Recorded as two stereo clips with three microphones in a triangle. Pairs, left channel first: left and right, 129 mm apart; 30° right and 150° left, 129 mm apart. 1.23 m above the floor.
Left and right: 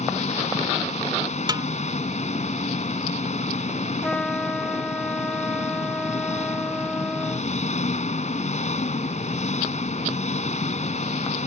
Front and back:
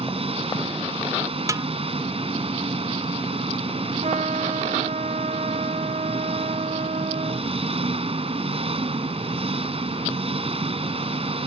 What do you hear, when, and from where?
0.0 s an engine running: 110° left
1.5 s a snare drum: 145° right
4.0 s a trumpet: 170° left